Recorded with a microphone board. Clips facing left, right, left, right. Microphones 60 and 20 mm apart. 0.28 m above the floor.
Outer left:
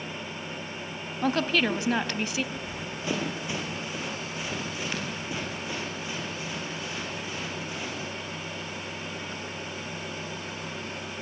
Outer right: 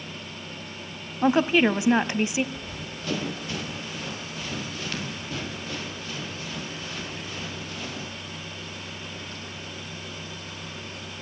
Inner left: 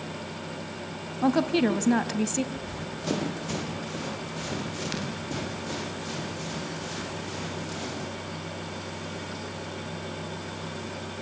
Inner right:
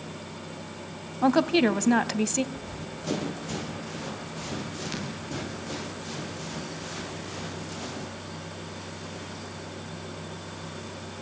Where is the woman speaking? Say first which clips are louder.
Outer right 5 dB, inner right 2 dB; 20° right (ahead or behind), 1.4 m.